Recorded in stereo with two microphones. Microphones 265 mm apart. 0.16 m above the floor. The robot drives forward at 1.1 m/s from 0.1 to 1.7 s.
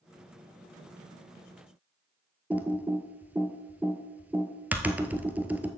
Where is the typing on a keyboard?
5° right (ahead or behind), 0.9 m.